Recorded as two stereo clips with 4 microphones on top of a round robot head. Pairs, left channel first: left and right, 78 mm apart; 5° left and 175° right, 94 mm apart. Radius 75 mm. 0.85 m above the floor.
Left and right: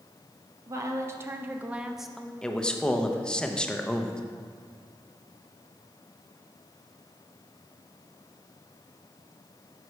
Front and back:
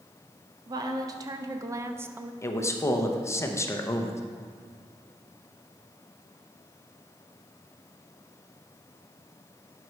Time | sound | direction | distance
0.7 | a woman speaking | 135° right | 1.0 m
2.4 | a man speaking | 20° left | 0.9 m